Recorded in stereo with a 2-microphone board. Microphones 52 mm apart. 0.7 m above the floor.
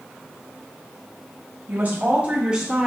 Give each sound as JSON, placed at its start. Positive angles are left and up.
{"t": 1.7, "sound": "a woman speaking", "side_deg": -45, "distance_m": 1.9}